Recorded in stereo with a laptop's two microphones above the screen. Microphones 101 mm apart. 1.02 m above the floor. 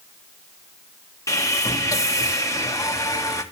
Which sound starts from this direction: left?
Sawing, at 1.3 s.